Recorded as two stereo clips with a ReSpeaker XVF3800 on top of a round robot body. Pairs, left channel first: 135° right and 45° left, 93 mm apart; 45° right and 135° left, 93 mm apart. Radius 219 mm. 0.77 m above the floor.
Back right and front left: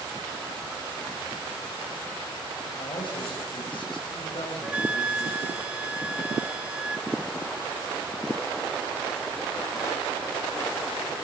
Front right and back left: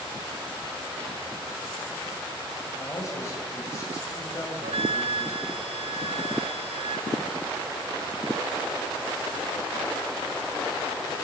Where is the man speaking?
105° right, 4.5 m.